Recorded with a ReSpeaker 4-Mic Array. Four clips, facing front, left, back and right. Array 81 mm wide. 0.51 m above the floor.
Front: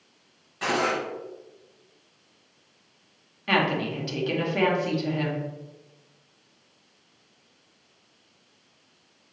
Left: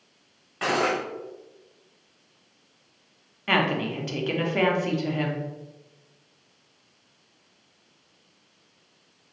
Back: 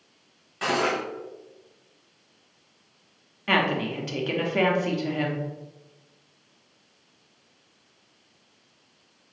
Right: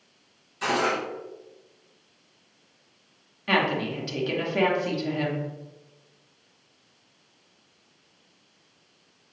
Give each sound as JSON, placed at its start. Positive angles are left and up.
{"t": 0.6, "sound": "cutlery clinking", "azimuth_deg": 105, "distance_m": 1.2}
{"t": 3.5, "sound": "a woman speaking", "azimuth_deg": 130, "distance_m": 0.7}